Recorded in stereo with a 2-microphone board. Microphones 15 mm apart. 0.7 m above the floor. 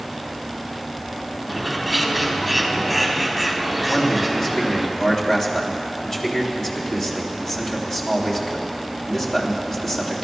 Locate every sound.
1.5 s a bird: centre (ahead or behind), 1.8 m
3.9 s a man speaking: 30° left (ahead or behind), 3 m